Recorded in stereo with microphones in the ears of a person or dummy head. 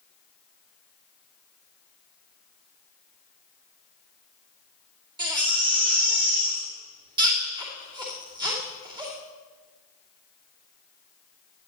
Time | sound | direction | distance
5.2 | a baby crying | 25° right (ahead or behind) | 2.5 m